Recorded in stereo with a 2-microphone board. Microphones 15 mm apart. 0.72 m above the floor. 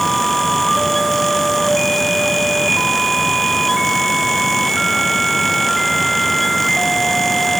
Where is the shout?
I don't hear a shout.